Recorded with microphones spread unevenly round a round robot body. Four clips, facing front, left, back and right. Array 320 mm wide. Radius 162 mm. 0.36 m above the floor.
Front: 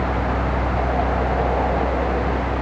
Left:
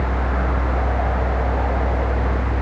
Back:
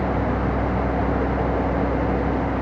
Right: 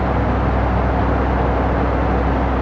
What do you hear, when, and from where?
Only background noise.